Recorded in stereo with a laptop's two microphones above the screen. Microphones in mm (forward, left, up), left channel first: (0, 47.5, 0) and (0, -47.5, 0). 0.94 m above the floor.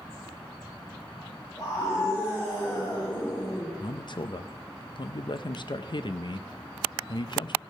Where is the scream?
50° left (ahead or behind), 3 m; by 3.7 s 35° left (ahead or behind), 2 m.